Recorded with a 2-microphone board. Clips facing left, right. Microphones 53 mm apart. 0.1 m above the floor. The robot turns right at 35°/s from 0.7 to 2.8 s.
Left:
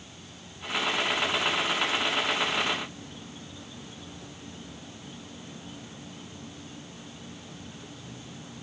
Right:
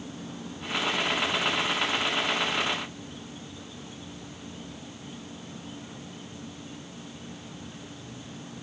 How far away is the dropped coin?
No dropped coin in this recording.